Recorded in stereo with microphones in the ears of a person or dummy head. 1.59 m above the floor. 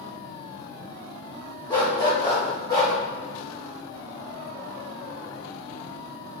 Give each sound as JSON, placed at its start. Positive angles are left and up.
{"t": 1.7, "sound": "a dog barking", "side_deg": 25, "distance_m": 1.8}